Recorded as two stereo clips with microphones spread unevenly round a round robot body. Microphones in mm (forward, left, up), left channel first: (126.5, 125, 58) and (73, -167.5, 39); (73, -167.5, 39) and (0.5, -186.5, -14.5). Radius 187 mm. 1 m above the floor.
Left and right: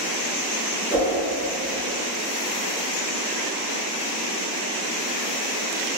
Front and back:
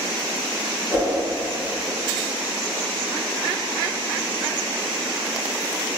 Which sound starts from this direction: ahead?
A whoosh, at 0.9 s.